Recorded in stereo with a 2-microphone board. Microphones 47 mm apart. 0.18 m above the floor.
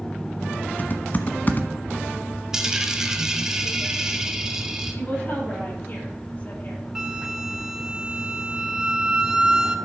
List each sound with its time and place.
0.8 s typing on a keyboard: 40° left (ahead or behind), 1.0 m
2.5 s a dropped coin: 15° right (ahead or behind), 1.2 m
5.0 s a woman speaking: 40° left (ahead or behind), 5.5 m
7.0 s a flute: 15° right (ahead or behind), 1.0 m